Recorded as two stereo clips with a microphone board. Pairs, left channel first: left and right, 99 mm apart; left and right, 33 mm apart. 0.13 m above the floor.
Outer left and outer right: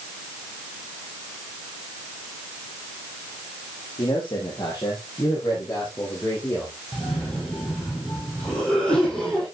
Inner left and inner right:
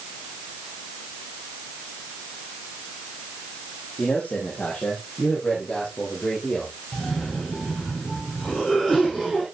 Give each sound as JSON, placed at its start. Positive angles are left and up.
{"t": 4.0, "sound": "a man speaking", "side_deg": 55, "distance_m": 4.5}
{"t": 6.9, "sound": "a cough", "side_deg": 10, "distance_m": 4.5}